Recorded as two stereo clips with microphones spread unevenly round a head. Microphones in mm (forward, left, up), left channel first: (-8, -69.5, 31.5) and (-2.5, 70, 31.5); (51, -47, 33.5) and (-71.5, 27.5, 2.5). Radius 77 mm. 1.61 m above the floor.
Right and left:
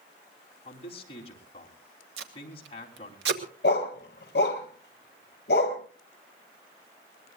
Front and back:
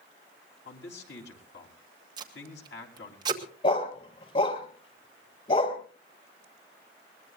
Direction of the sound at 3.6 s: 75° right.